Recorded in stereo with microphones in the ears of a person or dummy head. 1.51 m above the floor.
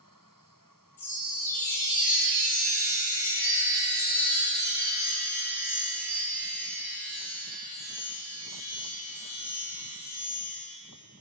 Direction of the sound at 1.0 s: 15° left (ahead or behind).